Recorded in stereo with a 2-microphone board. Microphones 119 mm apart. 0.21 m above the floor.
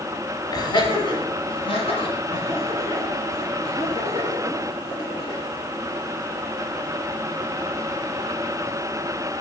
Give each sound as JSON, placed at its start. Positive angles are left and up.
{"t": 0.5, "sound": "laughter", "side_deg": 35, "distance_m": 1.4}